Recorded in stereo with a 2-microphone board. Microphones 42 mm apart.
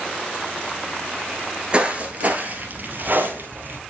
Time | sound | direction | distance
1.7 | footsteps | 20° right (ahead or behind) | 1.5 m